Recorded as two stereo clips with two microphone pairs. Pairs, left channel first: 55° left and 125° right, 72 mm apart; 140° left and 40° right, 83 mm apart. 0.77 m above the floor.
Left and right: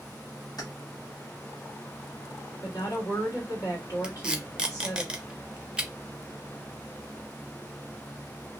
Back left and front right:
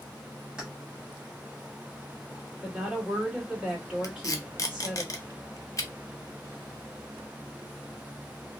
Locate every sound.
0.6 s keys jangling: 40° left, 0.9 m
2.6 s a woman speaking: 30° left, 1.6 m
4.0 s tape being pulled: 165° left, 0.5 m